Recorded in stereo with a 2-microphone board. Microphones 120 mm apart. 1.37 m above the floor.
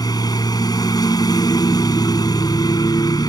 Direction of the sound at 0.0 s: 35° left (ahead or behind).